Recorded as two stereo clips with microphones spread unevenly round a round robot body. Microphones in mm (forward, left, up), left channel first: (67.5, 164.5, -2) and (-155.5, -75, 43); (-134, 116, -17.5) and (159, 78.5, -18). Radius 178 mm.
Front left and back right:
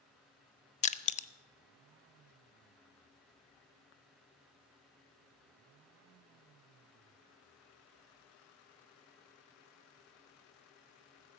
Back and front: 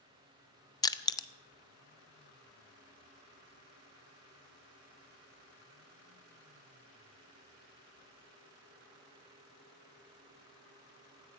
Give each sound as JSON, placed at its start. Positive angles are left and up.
{"t": 0.8, "sound": "crushing", "azimuth_deg": 100, "distance_m": 0.6}